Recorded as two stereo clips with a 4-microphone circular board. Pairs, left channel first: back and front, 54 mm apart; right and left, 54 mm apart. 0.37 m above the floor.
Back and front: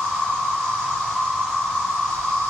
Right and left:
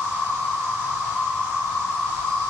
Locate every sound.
0.0 s an insect: 150° right, 1.9 m